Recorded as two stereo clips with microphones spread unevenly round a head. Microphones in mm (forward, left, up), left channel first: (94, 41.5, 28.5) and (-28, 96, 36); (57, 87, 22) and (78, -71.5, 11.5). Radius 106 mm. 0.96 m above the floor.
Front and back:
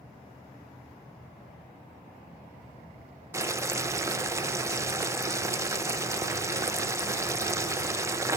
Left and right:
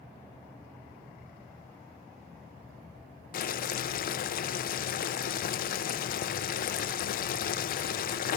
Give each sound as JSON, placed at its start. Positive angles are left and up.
{"t": 3.3, "sound": "boiling", "azimuth_deg": 90, "distance_m": 0.7}